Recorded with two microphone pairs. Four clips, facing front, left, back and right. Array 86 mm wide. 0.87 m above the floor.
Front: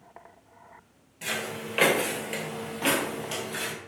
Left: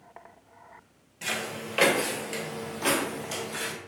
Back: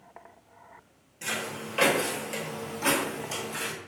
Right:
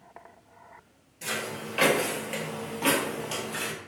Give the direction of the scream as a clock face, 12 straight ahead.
No scream in this recording.